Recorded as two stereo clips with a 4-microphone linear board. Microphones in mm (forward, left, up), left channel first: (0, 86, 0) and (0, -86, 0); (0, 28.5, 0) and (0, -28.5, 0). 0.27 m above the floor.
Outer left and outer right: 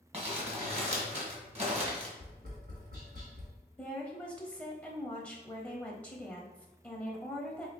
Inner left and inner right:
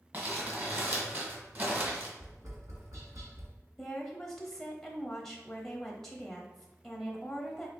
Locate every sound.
0.1 s crumpling: 40° right (ahead or behind), 1.4 m
2.2 s tapping: 65° right (ahead or behind), 1.6 m
3.8 s a woman speaking: 5° left (ahead or behind), 0.9 m